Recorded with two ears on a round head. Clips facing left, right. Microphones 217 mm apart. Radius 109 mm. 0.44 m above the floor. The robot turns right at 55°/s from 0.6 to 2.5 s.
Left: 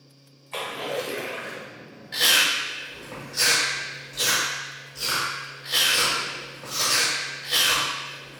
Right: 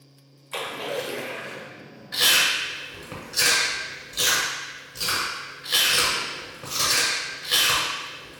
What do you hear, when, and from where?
0.5 s a splash: 20° right, 0.8 m; by 1.7 s 35° left, 0.8 m
2.1 s chewing: 10° right (ahead or behind), 1.3 m; by 8.4 s 30° right (ahead or behind), 1.3 m